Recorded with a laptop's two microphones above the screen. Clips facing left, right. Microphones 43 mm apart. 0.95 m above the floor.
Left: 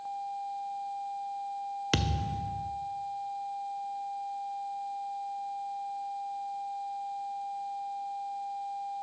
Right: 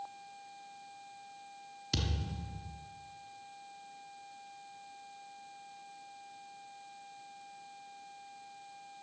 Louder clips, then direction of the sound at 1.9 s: Left 6 dB; 55° left (ahead or behind).